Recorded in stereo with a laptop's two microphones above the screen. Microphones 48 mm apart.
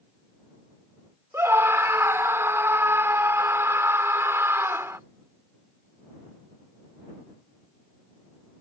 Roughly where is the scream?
Right.